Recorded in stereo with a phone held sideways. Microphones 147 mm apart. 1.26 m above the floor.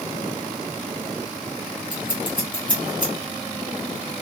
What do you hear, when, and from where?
1.9 s scissors: 30° left (ahead or behind), 1.8 m